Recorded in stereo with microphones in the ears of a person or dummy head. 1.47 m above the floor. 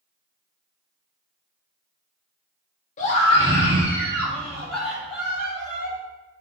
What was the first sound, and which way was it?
A scream, 40° left (ahead or behind).